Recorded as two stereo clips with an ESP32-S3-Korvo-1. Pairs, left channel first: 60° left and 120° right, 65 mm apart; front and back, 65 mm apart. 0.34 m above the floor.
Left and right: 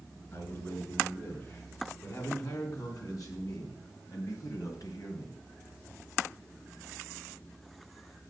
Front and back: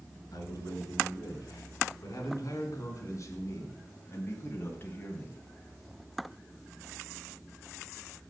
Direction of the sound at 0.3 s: 20° left.